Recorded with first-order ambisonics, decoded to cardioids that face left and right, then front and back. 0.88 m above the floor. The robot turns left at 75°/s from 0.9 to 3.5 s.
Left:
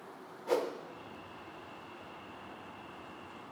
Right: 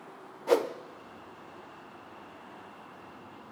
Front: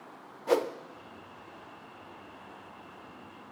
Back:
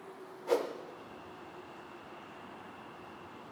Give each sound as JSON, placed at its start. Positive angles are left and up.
{"t": 0.5, "sound": "a whoosh", "azimuth_deg": -50, "distance_m": 0.5}